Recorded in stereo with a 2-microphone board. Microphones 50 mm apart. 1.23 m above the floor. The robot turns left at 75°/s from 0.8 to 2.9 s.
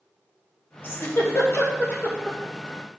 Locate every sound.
0.8 s a giggle: 45° left (ahead or behind), 2 m; by 2.4 s 15° left (ahead or behind), 2 m